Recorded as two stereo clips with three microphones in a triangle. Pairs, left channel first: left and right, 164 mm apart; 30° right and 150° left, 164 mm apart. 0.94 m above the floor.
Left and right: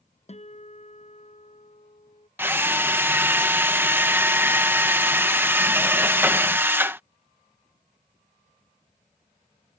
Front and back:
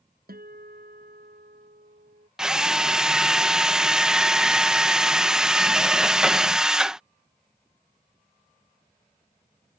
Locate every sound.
0.3 s a guitar: 135° left
2.4 s a drill: 135° right